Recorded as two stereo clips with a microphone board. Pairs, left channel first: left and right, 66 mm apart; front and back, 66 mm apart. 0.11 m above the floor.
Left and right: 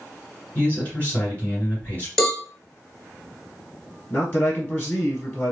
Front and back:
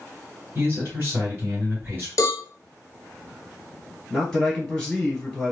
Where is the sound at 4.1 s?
75° left, 1.2 m.